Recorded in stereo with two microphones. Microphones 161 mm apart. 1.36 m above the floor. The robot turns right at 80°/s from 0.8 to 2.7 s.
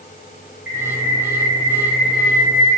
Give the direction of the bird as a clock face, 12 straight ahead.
10 o'clock.